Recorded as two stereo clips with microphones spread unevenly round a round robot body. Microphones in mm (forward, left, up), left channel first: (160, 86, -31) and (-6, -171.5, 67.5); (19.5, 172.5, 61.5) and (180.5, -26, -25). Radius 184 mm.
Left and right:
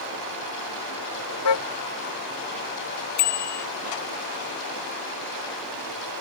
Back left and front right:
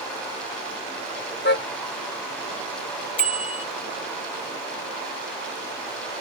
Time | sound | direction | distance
1.4 | a car horn | 85° left | ?
3.2 | a bicycle bell | 85° left | ?